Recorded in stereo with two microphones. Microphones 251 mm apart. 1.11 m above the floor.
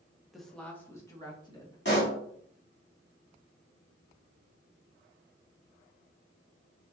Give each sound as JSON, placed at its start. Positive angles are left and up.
{"t": 0.3, "sound": "a woman speaking", "side_deg": 0, "distance_m": 0.9}
{"t": 1.9, "sound": "a pop", "side_deg": 45, "distance_m": 2.5}